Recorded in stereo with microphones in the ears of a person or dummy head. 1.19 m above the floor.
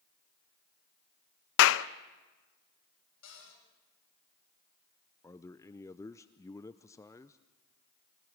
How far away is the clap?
About 0.6 m.